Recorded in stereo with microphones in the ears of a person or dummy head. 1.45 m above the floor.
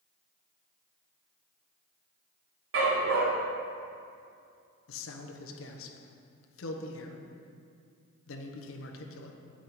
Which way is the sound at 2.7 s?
60° right (ahead or behind).